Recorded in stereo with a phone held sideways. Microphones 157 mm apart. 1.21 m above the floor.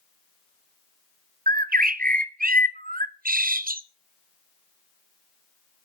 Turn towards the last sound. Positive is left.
turn(degrees=-70)  # may be behind; listen again after turning